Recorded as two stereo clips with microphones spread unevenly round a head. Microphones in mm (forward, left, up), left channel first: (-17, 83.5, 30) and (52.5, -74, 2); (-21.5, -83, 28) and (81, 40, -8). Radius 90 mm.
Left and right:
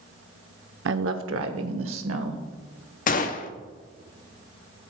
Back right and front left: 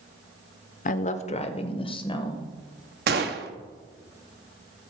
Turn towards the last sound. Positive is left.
turn(degrees=90)